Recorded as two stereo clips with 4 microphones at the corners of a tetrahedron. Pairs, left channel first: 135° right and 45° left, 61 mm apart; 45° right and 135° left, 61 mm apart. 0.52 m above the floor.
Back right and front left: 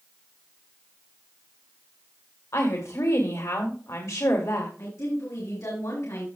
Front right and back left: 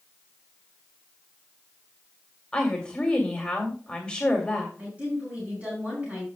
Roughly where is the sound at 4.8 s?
Behind.